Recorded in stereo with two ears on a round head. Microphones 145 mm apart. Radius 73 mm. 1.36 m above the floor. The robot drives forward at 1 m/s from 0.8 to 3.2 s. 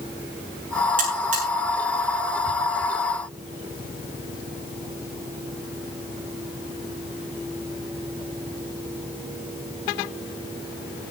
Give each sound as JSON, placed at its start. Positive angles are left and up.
{"t": 1.0, "sound": "a buzzer", "side_deg": -55, "distance_m": 8.0}